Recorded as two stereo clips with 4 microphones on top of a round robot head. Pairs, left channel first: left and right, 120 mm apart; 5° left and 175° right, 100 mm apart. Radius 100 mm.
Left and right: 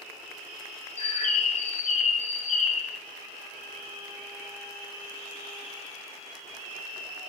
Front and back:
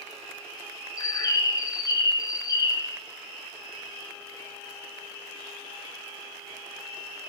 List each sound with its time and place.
1.0 s a bird: 60° left, 0.7 m